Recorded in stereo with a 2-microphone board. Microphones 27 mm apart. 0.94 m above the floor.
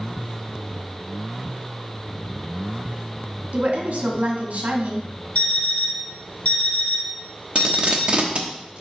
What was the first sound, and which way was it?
A woman speaking, 60° right (ahead or behind).